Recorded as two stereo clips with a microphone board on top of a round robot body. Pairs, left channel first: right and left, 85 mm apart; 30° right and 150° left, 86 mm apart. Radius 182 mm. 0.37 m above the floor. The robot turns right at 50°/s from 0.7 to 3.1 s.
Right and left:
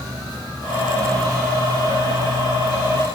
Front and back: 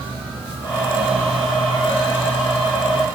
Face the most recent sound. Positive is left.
No sound to turn to.